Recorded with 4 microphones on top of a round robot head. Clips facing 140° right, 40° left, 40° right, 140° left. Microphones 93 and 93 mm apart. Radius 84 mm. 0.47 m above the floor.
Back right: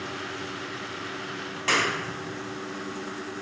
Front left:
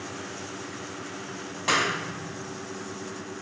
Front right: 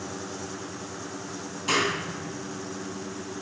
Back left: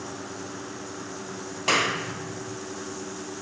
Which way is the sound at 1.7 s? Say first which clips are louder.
Even, back left 1 dB; 115° left.